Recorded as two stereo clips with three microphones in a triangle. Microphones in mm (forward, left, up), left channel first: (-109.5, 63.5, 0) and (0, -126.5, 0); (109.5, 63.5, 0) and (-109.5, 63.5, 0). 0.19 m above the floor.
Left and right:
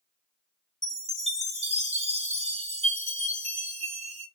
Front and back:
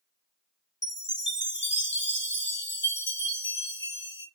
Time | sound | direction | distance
0.8 | a chime | 5° right | 3 m